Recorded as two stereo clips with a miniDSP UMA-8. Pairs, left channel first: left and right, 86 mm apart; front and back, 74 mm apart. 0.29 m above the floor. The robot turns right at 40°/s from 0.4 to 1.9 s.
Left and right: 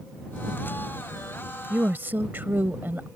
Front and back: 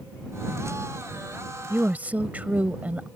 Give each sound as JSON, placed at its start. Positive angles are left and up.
{"t": 1.7, "sound": "a woman speaking", "azimuth_deg": -140}